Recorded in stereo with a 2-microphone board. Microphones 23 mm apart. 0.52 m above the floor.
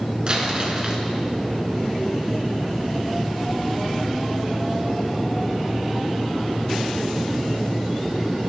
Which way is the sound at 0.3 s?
45° right (ahead or behind).